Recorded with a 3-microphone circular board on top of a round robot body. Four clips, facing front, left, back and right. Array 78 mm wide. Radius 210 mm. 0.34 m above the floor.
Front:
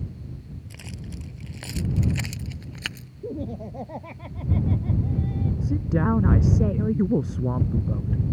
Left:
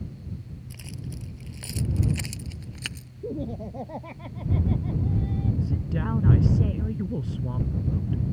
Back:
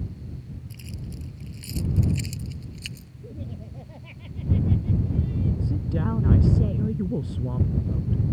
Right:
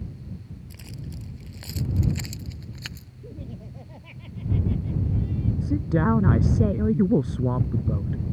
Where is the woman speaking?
65° right.